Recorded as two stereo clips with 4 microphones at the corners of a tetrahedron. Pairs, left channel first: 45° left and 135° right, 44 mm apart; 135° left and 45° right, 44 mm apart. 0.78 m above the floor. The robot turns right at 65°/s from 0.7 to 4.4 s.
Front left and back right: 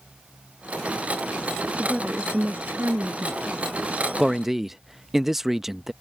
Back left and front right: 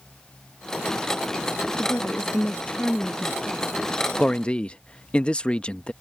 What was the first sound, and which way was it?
A woman speaking, 135° left.